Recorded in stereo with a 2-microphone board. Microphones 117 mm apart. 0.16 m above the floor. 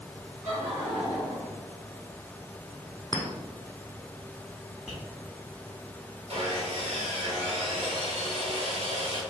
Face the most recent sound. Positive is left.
turn(degrees=-60)  # may be behind; listen again after turning